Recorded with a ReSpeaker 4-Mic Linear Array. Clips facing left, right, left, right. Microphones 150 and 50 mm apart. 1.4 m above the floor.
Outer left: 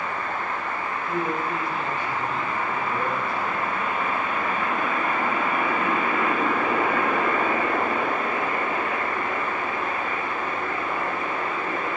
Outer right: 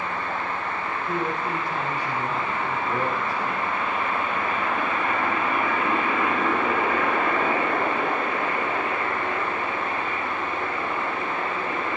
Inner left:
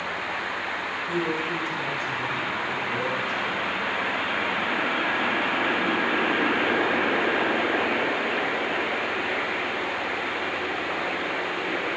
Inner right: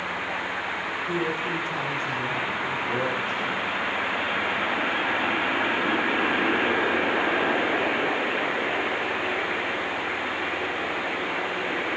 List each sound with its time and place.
1.1 s a man speaking: 45° right (ahead or behind), 6.5 m